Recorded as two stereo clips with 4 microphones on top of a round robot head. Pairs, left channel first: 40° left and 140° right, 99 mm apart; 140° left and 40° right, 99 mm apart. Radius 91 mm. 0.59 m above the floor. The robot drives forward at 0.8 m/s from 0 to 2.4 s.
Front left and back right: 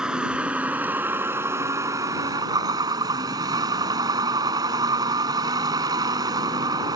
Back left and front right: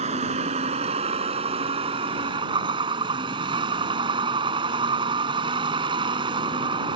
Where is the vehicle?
55° right; by 7.0 s 85° right.